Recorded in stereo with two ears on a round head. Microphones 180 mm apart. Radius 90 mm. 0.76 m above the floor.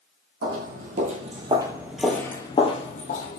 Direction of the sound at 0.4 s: 55° right (ahead or behind).